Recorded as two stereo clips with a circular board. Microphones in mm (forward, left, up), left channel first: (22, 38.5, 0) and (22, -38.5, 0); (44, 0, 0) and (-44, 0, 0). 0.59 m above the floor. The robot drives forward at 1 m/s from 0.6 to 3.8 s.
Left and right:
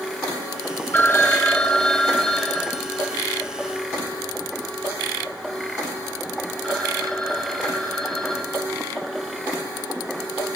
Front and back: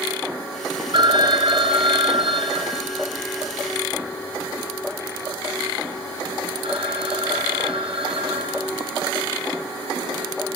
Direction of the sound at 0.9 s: 150° left.